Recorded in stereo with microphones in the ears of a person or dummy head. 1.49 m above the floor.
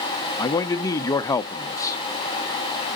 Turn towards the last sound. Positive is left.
turn(degrees=20)  # may be behind; listen again after turning